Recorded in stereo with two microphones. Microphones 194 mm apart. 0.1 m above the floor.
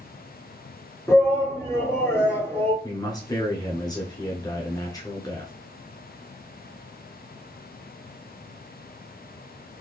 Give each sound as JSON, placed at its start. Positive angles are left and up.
{"t": 1.1, "sound": "a shout", "side_deg": 15, "distance_m": 1.4}
{"t": 2.8, "sound": "a man speaking", "side_deg": 20, "distance_m": 1.1}